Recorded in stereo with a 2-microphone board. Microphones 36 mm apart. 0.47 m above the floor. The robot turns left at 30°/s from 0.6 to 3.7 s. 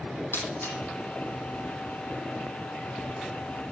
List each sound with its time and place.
0.3 s breaking glass: 80° left, 6.5 m; by 0.8 s 75° left (ahead or behind), 6.5 m